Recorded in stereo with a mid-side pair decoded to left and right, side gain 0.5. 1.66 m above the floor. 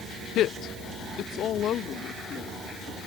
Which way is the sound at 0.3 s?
70° left.